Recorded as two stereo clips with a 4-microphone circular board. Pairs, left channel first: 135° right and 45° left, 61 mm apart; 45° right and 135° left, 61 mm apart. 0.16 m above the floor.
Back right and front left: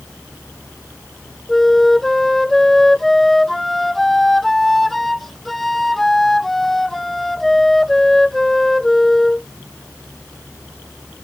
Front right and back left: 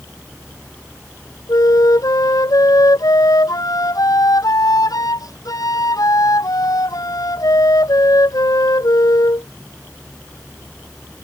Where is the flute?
50° right.